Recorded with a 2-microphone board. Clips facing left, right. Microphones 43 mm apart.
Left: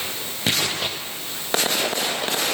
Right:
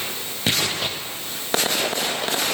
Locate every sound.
Only background noise.